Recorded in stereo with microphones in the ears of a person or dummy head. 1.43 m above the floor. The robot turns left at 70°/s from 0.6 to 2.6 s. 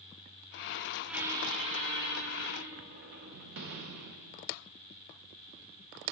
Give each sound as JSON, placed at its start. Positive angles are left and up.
{"t": 1.1, "sound": "a squeak", "azimuth_deg": 5, "distance_m": 0.6}